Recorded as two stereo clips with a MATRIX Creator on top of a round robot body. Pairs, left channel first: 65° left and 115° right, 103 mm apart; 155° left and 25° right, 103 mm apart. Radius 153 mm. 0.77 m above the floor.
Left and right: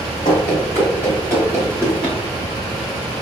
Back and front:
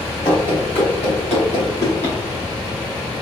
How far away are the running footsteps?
About 1.0 m.